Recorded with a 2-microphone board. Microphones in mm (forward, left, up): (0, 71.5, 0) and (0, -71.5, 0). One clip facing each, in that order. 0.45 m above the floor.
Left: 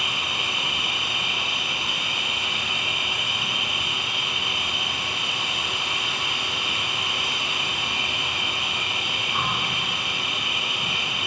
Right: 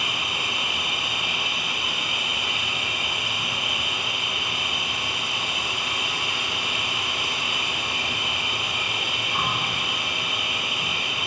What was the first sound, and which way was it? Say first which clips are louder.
An insect: even; 10° right (ahead or behind).